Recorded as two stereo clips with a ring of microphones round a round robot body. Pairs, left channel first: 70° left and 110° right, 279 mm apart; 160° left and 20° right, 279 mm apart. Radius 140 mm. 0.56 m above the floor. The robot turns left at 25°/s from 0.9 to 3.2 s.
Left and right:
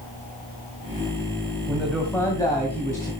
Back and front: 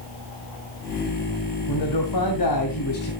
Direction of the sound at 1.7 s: 165° left.